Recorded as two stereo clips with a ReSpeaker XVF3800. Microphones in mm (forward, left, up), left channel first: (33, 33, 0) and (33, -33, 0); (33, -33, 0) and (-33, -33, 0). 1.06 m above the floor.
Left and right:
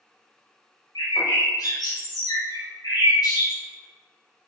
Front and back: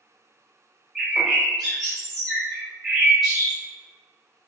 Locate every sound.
0.9 s a bird: 90° left, 0.8 m